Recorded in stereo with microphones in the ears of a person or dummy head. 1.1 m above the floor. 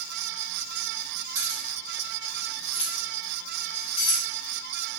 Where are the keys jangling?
15° right (ahead or behind), 1.3 m; by 4.2 s 80° left, 1.6 m.